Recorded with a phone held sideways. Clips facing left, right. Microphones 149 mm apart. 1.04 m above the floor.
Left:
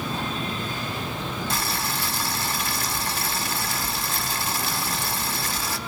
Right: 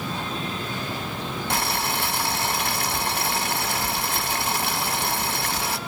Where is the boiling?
65° right (ahead or behind), 1.7 m.